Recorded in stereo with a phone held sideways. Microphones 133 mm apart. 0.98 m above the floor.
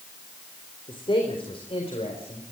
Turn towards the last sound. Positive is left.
turn(degrees=50)  # may be behind; listen again after turning